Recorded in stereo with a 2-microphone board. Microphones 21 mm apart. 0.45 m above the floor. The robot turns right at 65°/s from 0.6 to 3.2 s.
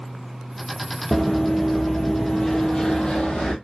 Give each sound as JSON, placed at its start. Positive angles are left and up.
{"t": 1.1, "sound": "running footsteps", "side_deg": 20, "distance_m": 0.8}